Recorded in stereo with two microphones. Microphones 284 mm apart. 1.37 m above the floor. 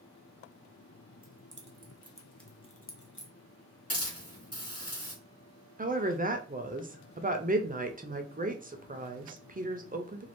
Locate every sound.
1.2 s keys jangling: 50° right (ahead or behind), 0.9 m; by 3.3 s 50° left (ahead or behind), 0.8 m
3.9 s a hiss: 55° left (ahead or behind), 1.6 m
5.8 s a woman speaking: 30° right (ahead or behind), 0.5 m